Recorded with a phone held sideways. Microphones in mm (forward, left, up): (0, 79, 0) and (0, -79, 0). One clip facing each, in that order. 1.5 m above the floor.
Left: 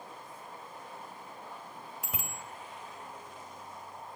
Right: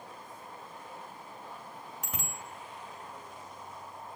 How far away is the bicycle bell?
About 2 m.